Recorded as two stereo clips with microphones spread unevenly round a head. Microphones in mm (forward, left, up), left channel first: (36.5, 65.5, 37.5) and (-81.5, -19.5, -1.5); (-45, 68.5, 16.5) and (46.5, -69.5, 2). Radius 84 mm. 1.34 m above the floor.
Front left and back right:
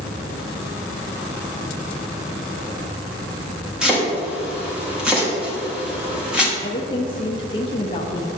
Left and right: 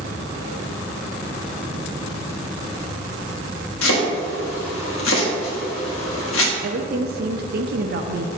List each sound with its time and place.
3.8 s chopping: 130° left, 1.7 m
6.6 s a woman speaking: 30° right, 0.5 m